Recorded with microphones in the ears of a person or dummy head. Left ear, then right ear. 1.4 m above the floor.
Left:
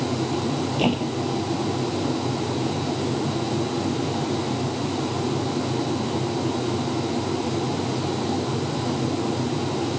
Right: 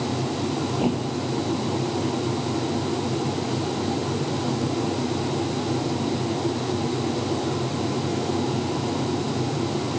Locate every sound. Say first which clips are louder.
0.8 s a thud: left 2 dB; 55° left (ahead or behind)